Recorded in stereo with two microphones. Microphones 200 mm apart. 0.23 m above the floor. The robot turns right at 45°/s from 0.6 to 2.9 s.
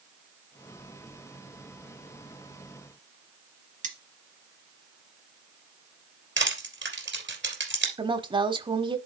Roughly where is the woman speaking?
Right.